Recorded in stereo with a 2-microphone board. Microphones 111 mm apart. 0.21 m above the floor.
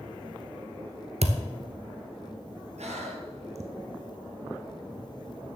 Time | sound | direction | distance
1.2 | a thud | 75° right (ahead or behind) | 0.9 m
2.8 | breathing | 80° right | 1.1 m